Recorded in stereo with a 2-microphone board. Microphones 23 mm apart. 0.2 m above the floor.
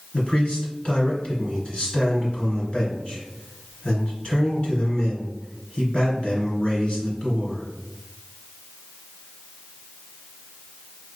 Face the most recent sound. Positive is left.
turn(degrees=55)  # may be behind; listen again after turning